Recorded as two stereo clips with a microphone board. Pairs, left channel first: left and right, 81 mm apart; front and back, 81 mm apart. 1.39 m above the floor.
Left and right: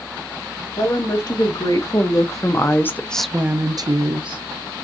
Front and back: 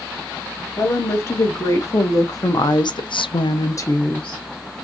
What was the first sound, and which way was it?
A woman speaking, 55° left.